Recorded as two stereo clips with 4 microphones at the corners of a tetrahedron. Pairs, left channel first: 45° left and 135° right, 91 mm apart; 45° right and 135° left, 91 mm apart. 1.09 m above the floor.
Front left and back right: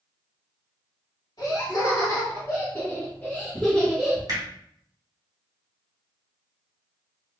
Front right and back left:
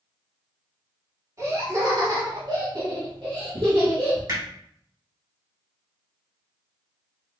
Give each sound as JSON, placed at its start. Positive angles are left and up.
{"t": 1.4, "sound": "laughter", "azimuth_deg": 85, "distance_m": 2.0}
{"t": 4.3, "sound": "hammering", "azimuth_deg": 175, "distance_m": 2.0}